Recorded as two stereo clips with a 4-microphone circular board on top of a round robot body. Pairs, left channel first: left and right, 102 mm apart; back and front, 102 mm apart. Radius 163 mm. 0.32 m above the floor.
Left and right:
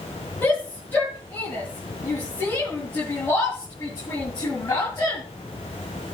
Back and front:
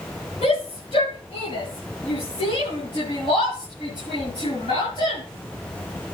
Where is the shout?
160° left, 9 m; by 5.2 s 150° left, 7 m.